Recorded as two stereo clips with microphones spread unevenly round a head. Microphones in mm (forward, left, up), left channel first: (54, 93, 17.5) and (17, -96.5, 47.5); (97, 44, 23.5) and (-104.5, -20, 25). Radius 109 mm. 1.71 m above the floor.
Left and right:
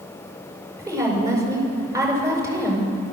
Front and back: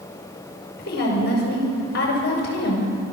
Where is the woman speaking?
30° right, 7 m.